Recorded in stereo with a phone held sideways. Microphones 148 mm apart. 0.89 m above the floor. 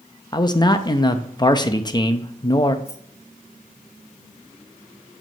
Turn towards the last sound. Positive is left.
turn(degrees=45)  # may be behind; listen again after turning